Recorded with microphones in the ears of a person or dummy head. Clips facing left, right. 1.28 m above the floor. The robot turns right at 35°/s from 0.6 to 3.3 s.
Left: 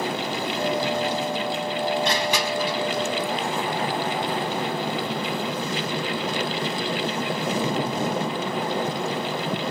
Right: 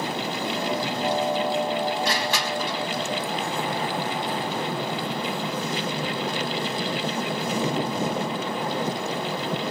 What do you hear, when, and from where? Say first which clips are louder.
2.0 s crushing: left 2 dB; 25° left (ahead or behind), 3.5 m; by 2.8 s centre (ahead or behind), 3.5 m